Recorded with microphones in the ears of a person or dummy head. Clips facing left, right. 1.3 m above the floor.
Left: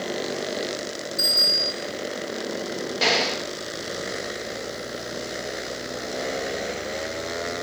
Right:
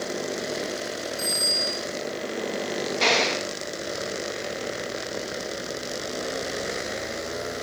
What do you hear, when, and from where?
1.2 s a bicycle bell: 60° left (ahead or behind), 8.5 m
3.0 s an explosion: 5° left (ahead or behind), 1.2 m